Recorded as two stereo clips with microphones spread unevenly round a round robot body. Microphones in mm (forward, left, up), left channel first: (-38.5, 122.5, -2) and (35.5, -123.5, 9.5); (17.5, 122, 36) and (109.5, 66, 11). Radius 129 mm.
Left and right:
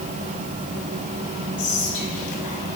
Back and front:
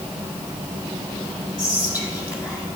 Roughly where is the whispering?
Left.